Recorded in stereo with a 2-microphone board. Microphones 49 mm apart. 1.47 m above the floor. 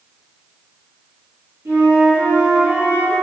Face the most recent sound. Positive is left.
turn(degrees=-75)  # may be behind; listen again after turning